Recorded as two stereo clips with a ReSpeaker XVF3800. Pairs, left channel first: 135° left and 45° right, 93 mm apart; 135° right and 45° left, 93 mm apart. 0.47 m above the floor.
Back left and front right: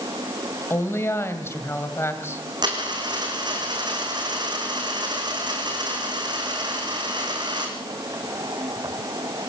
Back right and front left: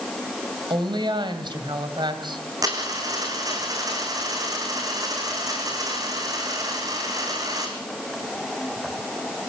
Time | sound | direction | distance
0.7 | a woman speaking | 75° left | 2 m
2.6 | a dropped coin | 5° right | 3.5 m